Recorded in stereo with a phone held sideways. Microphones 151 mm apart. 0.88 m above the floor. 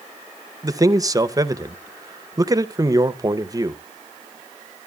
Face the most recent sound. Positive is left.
turn(degrees=-25)  # may be behind; listen again after turning